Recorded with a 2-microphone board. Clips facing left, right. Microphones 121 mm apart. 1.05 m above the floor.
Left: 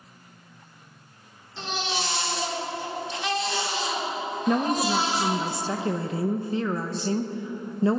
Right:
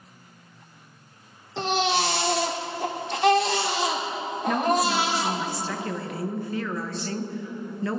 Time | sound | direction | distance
1.6 | a baby crying | 70° right (ahead or behind) | 1.6 m
4.5 | a woman speaking | 25° left (ahead or behind) | 1.1 m